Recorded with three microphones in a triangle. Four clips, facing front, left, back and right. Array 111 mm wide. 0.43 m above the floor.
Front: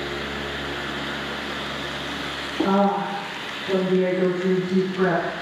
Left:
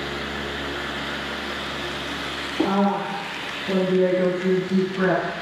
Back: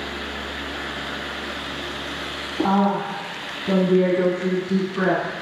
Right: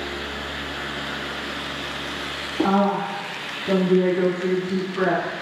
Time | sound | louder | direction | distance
2.6 | a woman speaking | right 2 dB, even | 150° right | 2.5 m